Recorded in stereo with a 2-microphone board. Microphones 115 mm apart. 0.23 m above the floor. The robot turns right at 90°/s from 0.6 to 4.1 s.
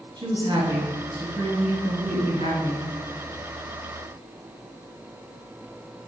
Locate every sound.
0.2 s a woman speaking: 45° right, 2.5 m; by 2.9 s 160° left, 2.5 m